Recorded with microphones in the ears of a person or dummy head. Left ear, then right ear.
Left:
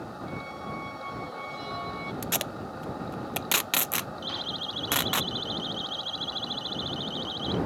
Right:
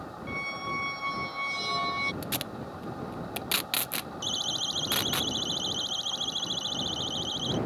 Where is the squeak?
45° right (ahead or behind).